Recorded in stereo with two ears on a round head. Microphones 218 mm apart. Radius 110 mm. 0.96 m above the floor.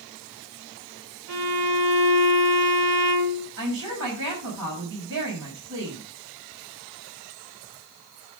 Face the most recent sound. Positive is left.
turn(degrees=-60)  # may be behind; listen again after turning